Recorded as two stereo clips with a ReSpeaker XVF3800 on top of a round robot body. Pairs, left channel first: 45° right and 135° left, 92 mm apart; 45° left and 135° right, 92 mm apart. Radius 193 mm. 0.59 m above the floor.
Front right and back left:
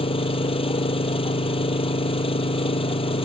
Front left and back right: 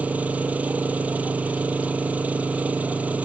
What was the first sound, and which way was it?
An engine running, 60° right.